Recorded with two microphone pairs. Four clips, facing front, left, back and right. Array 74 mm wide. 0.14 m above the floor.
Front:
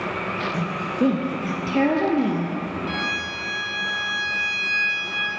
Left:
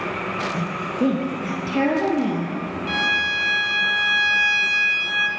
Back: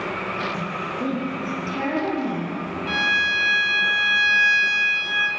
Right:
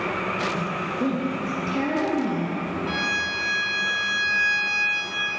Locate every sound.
0.5 s a woman speaking: 40° left, 3 m; by 2.5 s 25° left, 4.5 m
2.9 s a violin: 125° left, 3 m